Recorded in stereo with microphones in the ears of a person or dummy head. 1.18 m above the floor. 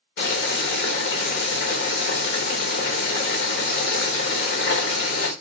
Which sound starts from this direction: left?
Boiling, at 0.2 s.